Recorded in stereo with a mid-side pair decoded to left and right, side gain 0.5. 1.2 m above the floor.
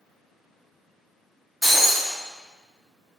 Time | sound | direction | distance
1.6 | breaking glass | 10° left | 1.0 m